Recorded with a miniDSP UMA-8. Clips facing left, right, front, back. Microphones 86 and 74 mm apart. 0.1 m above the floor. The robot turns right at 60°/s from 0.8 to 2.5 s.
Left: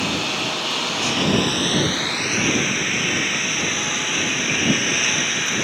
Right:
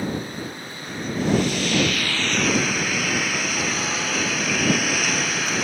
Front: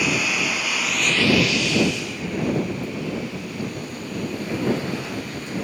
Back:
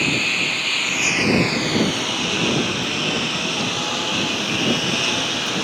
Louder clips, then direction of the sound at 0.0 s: Left 3 dB, even; 80° left.